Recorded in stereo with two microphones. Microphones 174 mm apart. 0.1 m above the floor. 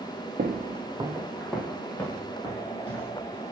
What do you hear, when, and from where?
0.4 s footsteps: 60° right (ahead or behind), 0.5 m; by 3.1 s 30° left (ahead or behind), 1.4 m